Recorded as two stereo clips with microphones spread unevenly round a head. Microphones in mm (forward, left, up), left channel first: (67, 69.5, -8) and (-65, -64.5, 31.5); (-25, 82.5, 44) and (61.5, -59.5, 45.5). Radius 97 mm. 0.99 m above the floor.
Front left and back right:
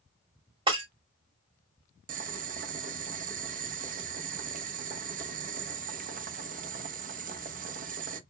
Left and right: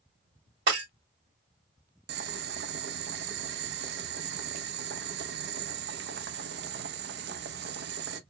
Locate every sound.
0.7 s breaking glass: 70° right, 2 m
2.1 s boiling: 85° right, 0.5 m